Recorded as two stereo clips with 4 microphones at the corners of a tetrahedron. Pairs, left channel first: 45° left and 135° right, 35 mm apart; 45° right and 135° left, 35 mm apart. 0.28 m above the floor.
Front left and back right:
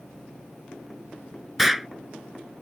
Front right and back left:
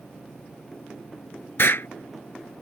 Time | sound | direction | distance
1.6 | an explosion | 50° right | ?